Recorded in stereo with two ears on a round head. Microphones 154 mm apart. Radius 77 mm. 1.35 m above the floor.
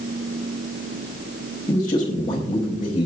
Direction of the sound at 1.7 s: 25° left (ahead or behind).